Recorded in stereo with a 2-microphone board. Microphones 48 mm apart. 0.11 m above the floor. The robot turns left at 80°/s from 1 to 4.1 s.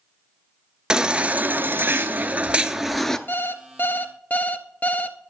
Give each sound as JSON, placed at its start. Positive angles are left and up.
{"t": 0.9, "sound": "a baby crying", "azimuth_deg": -25, "distance_m": 0.6}
{"t": 3.3, "sound": "an alarm clock", "azimuth_deg": 110, "distance_m": 0.6}